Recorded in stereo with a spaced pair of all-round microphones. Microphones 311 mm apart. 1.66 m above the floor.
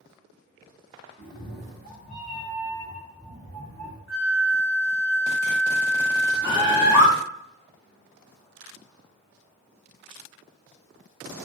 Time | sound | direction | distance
1.2 | a cat meowing | 20° right (ahead or behind) | 1.3 m
4.1 | a flute | 45° right (ahead or behind) | 1.4 m
6.4 | a bird | 5° right (ahead or behind) | 1.1 m